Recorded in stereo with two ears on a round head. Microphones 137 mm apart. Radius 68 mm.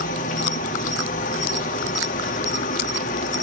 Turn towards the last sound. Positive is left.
turn(degrees=55)  # may be behind; listen again after turning